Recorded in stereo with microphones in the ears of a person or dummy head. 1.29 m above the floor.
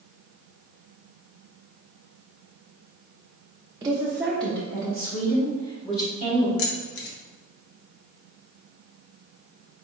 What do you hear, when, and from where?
3.8 s a woman speaking: 20° right (ahead or behind), 0.5 m; by 6.5 s 40° left (ahead or behind), 1.7 m
6.6 s keys jangling: 70° left (ahead or behind), 1.0 m